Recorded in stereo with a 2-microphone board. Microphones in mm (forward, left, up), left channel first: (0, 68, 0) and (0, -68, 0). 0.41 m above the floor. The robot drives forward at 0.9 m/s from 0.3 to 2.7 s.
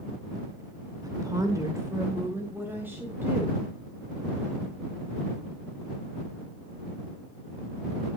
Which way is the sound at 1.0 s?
30° right (ahead or behind).